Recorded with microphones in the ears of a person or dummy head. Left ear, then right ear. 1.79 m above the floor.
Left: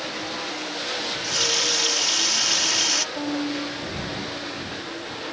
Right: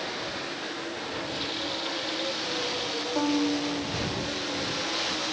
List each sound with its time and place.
1.0 s a running tap: 50° left (ahead or behind)
3.1 s a violin: 75° right (ahead or behind)